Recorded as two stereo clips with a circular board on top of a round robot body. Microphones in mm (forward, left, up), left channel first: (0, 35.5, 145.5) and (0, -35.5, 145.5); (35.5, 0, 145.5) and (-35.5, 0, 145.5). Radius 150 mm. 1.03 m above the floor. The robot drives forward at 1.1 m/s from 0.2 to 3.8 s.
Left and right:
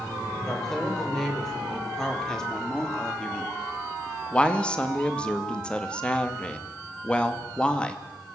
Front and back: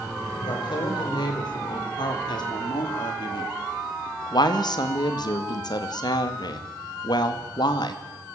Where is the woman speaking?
5° left, 6 m; by 8.0 s 15° left, 2.5 m.